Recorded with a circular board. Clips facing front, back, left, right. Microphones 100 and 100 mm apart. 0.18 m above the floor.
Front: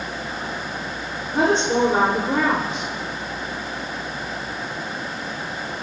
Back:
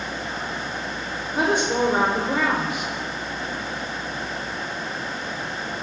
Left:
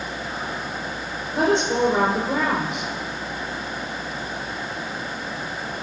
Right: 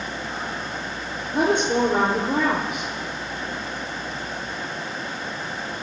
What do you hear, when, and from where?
1.3 s a woman speaking: 60° right, 6 m